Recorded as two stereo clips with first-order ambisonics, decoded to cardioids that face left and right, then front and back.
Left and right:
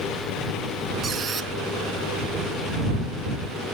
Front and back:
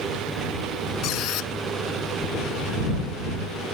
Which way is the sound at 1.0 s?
25° right.